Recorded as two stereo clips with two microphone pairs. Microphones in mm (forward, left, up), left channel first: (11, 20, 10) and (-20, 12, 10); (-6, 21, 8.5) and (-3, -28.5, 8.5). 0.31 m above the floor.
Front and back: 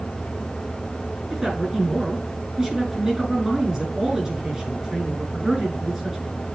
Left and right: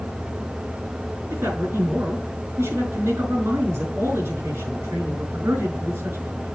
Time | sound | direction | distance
1.3 | a man speaking | 100° right | 5.5 m